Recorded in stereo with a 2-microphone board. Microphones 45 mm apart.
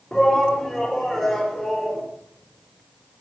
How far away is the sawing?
No sawing in this recording.